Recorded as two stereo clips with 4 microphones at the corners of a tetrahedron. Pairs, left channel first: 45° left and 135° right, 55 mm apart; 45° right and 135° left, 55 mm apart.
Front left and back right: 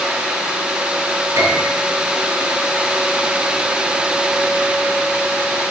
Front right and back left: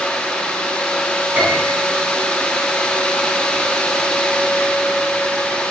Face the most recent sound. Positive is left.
turn(degrees=-160)